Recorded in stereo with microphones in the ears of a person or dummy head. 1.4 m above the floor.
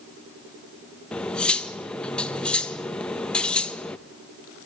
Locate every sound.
1.1 s cutlery clinking: 5° left (ahead or behind), 0.9 m